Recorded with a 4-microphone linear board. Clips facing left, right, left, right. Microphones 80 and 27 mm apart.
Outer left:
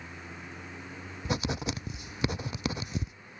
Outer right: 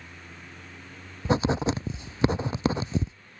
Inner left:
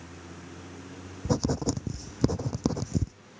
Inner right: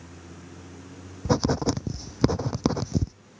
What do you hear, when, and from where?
0.0 s a vehicle: 10° left (ahead or behind); by 3.4 s 15° left (ahead or behind)
1.2 s writing: 30° right (ahead or behind)